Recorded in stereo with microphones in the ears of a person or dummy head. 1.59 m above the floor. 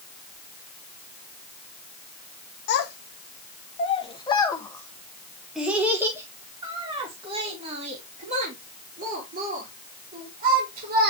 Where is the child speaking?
55° left (ahead or behind), 1.8 m; by 11.1 s 50° right (ahead or behind), 4.5 m.